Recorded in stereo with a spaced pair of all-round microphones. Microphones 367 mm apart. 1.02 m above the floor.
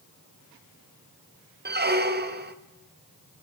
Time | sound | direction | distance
1.6 | a squeak | 30° right (ahead or behind) | 0.5 m